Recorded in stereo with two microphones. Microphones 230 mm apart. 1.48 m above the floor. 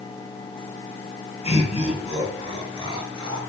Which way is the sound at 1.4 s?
30° left (ahead or behind).